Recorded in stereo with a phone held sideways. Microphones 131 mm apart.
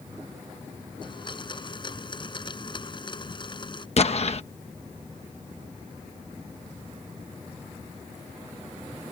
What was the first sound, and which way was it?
A blender, 35° left (ahead or behind).